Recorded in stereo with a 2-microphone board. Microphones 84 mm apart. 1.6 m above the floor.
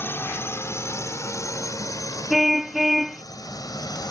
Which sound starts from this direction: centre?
A car horn, at 2.3 s.